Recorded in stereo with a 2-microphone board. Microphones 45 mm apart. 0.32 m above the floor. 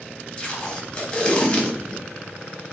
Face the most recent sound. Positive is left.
turn(degrees=20)  # may be behind; listen again after turning